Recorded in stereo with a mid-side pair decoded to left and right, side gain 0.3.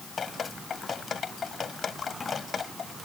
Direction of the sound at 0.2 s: 65° left.